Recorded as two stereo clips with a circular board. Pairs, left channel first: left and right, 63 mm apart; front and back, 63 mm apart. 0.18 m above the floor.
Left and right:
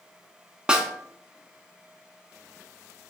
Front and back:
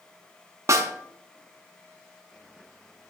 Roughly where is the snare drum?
Behind.